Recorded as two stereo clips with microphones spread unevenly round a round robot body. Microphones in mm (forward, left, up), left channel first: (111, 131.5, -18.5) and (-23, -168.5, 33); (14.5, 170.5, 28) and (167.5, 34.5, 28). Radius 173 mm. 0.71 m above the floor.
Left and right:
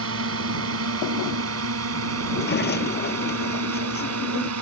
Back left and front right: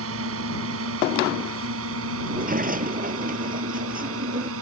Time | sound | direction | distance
0.0 | a drone | 65° right | ?
2.2 | a sliding door | 5° left | ?